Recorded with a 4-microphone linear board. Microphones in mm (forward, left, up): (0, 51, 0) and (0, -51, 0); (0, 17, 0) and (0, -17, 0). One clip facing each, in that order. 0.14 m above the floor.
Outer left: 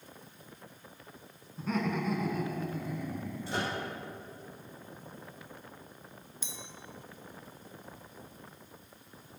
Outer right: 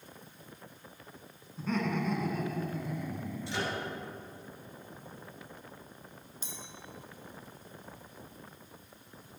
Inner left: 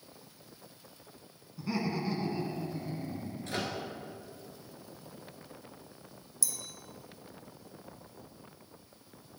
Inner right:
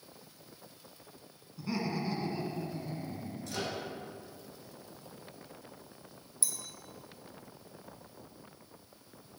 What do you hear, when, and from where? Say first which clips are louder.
1.6 s laughter: even, inner left 1 dB; 5° left (ahead or behind), 1.1 m; by 3.8 s centre (ahead or behind), 1.8 m
3.5 s a microwave: outer left 1 dB, inner left 2 dB; 45° left (ahead or behind), 1.5 m
6.4 s a clink: even, inner left 1 dB; 40° right (ahead or behind), 1.5 m